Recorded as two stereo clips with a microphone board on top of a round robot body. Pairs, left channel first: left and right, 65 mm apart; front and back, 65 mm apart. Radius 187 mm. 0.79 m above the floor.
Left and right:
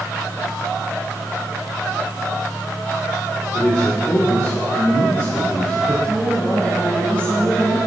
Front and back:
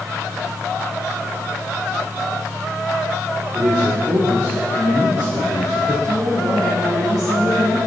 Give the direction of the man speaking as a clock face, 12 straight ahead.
7 o'clock.